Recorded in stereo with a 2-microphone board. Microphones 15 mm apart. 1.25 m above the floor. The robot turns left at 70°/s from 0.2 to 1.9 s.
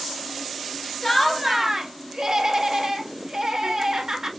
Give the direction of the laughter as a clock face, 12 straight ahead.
11 o'clock.